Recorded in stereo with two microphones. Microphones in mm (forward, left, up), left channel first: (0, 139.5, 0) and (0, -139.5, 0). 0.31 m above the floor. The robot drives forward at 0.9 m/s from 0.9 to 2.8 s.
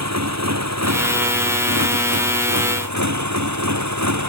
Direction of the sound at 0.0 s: 70° right (ahead or behind).